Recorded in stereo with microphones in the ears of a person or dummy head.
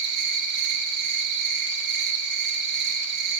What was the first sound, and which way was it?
An insect, 60° right (ahead or behind).